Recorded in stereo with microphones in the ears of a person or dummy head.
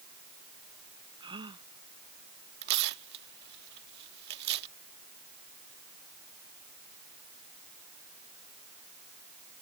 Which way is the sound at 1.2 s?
30° right (ahead or behind).